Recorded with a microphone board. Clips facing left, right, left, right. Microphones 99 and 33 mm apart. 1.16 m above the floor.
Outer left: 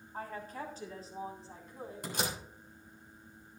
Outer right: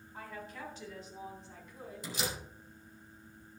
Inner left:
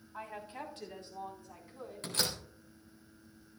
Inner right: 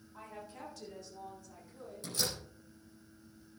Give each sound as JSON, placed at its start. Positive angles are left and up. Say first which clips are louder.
{"t": 0.1, "sound": "a woman speaking", "louder": "outer left 4 dB, inner left 5 dB", "side_deg": 45, "distance_m": 3.0}
{"t": 2.0, "sound": "a door slam", "louder": "outer left 2 dB, inner left 2 dB", "side_deg": 55, "distance_m": 3.5}